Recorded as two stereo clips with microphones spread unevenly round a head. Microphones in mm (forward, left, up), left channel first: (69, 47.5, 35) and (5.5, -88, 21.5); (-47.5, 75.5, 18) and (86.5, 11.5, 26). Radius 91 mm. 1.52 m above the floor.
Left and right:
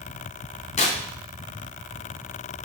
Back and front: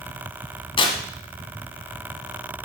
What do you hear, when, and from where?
0.8 s tearing paper: 105° left, 2 m